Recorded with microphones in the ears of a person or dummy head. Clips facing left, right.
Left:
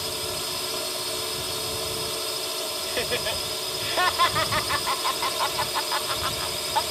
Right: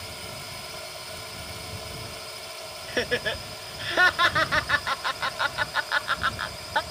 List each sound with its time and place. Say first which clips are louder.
0.0 s a drone: left 8 dB; 60° left (ahead or behind)
2.9 s laughter: right 2 dB; 25° right (ahead or behind)